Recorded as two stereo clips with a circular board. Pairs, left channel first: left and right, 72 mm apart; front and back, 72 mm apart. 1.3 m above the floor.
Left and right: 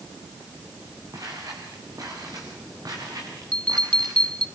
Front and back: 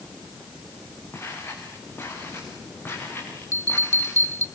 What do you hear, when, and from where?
1.1 s footsteps: 55° right, 6.5 m; by 4.2 s 60° right, 8.5 m
3.5 s a bell: 160° left, 1.0 m